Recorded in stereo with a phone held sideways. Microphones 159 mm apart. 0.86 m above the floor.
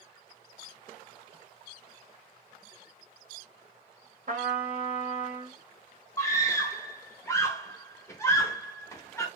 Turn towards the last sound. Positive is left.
turn(degrees=20)  # may be behind; listen again after turning